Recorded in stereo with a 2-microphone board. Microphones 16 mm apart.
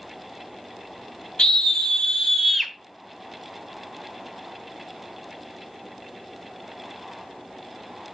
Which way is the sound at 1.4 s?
60° left (ahead or behind).